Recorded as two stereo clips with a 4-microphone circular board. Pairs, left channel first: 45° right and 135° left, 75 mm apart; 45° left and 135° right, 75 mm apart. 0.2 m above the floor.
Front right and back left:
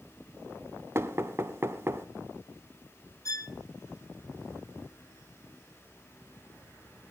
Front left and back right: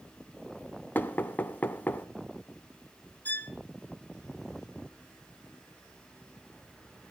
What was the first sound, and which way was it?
Knocking, 100° left.